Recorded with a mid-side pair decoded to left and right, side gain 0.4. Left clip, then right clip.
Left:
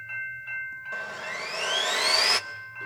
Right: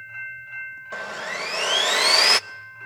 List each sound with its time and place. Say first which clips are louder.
0.9 s sawing: right 5 dB; 50° right, 0.6 m